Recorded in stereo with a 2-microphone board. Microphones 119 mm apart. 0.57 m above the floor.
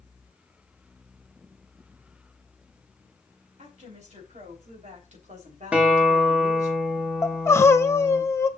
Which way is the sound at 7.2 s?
20° left (ahead or behind).